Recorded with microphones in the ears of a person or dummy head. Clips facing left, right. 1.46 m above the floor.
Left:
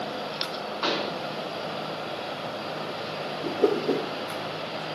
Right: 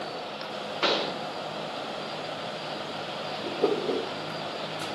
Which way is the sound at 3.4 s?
5° left (ahead or behind).